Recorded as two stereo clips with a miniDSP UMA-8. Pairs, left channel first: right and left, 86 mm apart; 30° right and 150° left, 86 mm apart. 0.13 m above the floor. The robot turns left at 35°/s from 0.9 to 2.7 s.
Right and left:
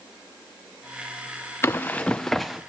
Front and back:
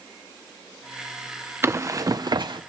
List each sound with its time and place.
1.6 s running footsteps: 150° right, 0.6 m; by 2.6 s 175° left, 0.6 m